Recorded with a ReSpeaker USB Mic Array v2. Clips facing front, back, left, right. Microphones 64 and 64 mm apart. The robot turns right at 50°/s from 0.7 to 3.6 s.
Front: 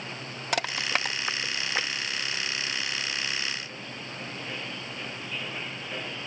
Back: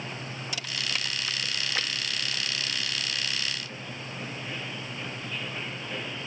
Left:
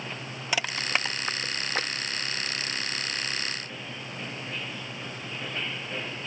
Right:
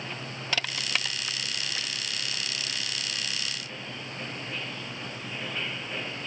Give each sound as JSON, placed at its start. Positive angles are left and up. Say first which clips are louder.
{"t": 0.5, "sound": "crushing", "louder": "front 8 dB, left 3 dB", "azimuth_deg": 20}